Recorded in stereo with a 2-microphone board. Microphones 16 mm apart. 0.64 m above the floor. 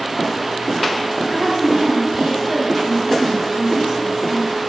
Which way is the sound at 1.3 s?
50° right (ahead or behind).